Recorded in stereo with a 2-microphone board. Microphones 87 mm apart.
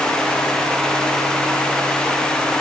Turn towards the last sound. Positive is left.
No sound to turn to.